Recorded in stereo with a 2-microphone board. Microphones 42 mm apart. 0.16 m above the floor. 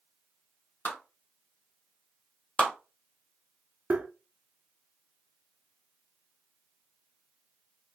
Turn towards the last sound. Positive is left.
turn(degrees=-40)  # may be behind; listen again after turning